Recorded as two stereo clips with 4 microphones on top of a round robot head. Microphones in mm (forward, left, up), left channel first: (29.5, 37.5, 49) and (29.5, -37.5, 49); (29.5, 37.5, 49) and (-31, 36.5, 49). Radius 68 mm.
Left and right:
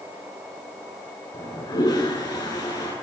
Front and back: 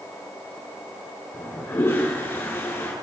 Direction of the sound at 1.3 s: 55° left.